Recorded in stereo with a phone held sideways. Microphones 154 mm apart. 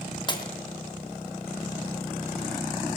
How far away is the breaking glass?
About 3 m.